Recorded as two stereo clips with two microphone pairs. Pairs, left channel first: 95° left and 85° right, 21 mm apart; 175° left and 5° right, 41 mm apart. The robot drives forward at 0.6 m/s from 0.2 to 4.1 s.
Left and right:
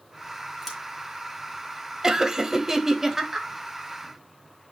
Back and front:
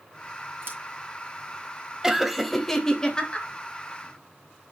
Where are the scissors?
5° left, 3 m.